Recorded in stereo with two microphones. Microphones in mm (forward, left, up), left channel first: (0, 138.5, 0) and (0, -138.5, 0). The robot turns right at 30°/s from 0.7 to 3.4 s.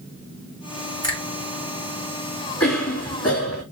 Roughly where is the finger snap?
Centre.